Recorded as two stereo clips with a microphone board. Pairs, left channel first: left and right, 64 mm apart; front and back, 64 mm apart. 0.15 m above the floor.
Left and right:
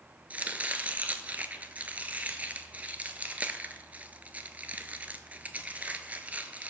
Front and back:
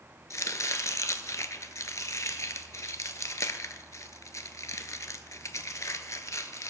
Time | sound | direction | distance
0.3 | chopping | 25° right | 0.6 m